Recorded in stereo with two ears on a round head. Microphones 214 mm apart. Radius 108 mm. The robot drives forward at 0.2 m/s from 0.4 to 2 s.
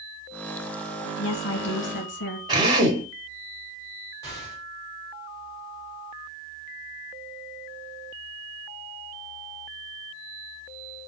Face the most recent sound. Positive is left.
turn(degrees=15)  # may be behind; listen again after turning